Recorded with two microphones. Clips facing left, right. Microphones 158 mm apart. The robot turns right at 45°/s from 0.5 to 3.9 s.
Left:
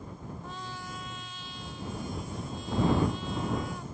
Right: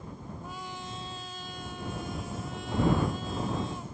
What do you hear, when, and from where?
0.4 s a trumpet: 170° right; by 3.9 s 20° right